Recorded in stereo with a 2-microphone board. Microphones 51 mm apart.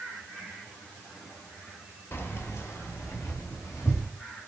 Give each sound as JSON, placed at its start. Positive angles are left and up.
{"t": 2.1, "sound": "keys jangling", "side_deg": 50, "distance_m": 0.9}